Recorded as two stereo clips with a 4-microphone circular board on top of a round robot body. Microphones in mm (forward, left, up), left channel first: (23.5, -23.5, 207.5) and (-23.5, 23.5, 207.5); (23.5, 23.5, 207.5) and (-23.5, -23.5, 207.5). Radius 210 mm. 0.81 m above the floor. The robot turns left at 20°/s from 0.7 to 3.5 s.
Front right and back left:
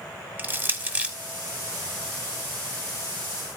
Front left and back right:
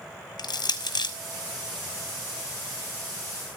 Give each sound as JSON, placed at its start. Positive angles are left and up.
{"t": 0.4, "sound": "crushing", "azimuth_deg": 65, "distance_m": 1.6}